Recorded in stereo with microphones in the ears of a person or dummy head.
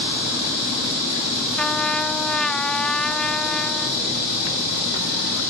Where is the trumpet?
5° left (ahead or behind).